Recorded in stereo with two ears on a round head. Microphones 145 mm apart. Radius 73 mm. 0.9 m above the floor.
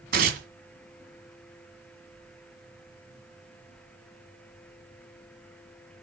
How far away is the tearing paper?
About 1.7 m.